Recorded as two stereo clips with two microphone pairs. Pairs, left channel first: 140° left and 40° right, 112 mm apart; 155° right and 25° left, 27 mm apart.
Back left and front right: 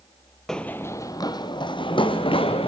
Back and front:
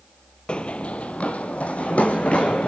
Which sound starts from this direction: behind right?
Running footsteps, at 0.5 s.